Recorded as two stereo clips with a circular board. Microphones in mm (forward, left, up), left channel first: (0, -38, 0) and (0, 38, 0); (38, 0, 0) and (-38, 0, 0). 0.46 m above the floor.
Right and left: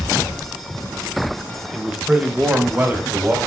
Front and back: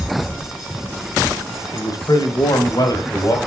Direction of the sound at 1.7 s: 10° left.